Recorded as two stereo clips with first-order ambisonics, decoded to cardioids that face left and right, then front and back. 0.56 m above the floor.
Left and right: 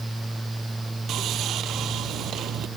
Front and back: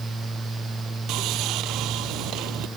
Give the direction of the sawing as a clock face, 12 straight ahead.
5 o'clock.